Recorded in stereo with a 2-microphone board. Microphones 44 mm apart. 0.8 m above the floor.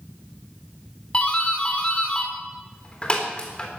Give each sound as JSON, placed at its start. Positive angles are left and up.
{"t": 1.1, "sound": "a doorbell", "side_deg": 25, "distance_m": 3.5}